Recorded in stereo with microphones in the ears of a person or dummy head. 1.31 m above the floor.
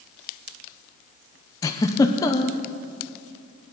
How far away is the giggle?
About 0.6 m.